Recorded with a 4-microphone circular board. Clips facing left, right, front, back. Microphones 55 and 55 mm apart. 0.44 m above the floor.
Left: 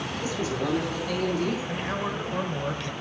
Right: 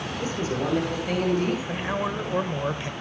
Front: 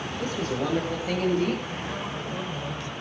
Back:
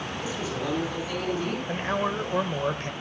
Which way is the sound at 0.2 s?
40° right.